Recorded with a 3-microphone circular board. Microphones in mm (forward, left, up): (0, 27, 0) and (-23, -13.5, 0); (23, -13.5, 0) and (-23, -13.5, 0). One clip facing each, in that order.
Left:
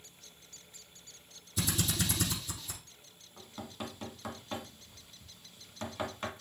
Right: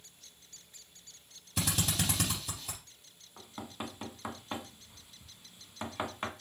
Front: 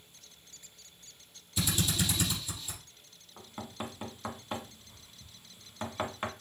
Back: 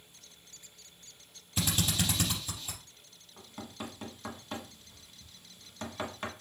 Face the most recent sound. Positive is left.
turn(degrees=-60)